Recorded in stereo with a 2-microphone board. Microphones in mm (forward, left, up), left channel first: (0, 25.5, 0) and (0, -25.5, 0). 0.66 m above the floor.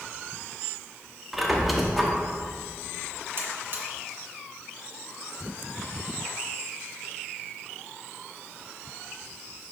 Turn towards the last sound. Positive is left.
turn(degrees=-45)  # may be behind; listen again after turning